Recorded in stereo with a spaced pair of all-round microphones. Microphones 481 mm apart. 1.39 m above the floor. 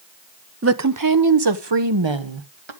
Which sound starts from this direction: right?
A woman speaking, at 0.6 s.